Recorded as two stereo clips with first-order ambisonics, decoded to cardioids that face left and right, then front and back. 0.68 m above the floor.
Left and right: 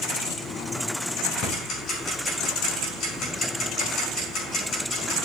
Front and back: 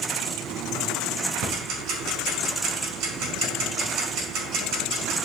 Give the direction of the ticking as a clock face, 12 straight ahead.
7 o'clock.